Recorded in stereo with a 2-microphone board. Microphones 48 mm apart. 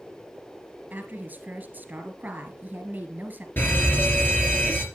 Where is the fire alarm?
40° left (ahead or behind), 3 m.